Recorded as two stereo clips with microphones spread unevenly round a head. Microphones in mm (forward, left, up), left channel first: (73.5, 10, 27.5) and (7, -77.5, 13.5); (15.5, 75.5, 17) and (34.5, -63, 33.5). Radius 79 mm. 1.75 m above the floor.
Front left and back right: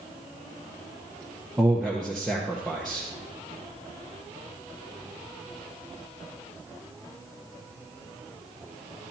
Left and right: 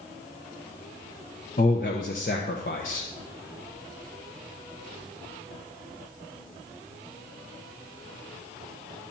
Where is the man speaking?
135° left, 0.9 m.